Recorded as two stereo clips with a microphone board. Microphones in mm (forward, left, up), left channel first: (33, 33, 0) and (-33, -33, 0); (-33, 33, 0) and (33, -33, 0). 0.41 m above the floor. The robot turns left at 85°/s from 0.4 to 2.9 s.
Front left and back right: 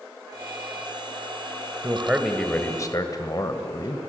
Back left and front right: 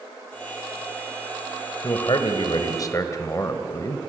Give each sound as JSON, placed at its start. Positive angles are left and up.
{"t": 1.8, "sound": "a man speaking", "azimuth_deg": 175, "distance_m": 2.0}